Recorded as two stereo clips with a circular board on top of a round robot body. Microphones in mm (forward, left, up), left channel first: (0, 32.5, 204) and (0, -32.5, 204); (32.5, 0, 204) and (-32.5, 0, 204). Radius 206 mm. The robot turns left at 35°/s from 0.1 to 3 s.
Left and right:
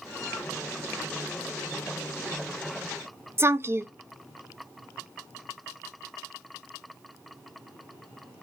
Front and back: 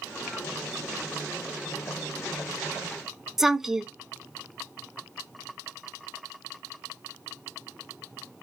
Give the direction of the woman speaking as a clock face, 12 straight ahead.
3 o'clock.